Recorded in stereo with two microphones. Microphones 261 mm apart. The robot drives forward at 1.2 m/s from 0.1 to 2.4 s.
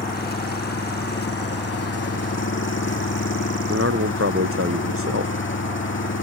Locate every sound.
0.0 s an engine running: 35° left (ahead or behind); by 6.2 s 50° left (ahead or behind)
3.7 s a man speaking: 55° right (ahead or behind)